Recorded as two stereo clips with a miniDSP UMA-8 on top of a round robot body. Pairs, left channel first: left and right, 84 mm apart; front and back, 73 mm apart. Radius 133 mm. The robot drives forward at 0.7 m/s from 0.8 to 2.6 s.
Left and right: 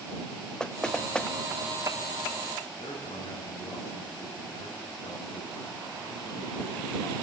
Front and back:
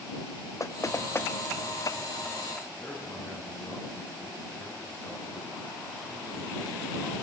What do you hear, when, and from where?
0.6 s knocking: 15° left, 1.4 m; by 1.3 s 20° left, 1.2 m
2.8 s a man speaking: 70° left, 9.5 m